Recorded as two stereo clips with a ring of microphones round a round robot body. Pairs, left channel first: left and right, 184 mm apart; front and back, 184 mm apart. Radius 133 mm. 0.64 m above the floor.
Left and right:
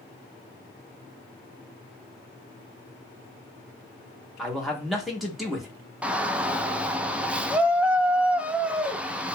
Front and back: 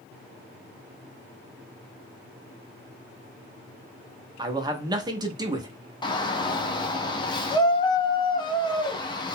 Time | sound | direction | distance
4.4 | a man speaking | straight behind | 0.6 m
6.0 | a shout | 15° right | 0.5 m